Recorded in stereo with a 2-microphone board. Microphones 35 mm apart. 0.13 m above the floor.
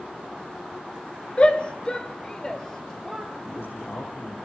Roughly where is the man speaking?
Left.